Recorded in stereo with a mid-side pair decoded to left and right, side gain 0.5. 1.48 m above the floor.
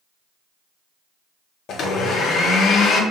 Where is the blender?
60° left, 0.5 m.